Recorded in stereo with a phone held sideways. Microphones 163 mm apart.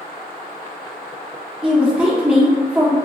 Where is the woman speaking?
5° right (ahead or behind), 1.3 m.